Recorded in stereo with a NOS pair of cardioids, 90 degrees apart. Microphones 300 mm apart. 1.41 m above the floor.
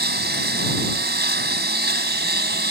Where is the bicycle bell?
No bicycle bell in this recording.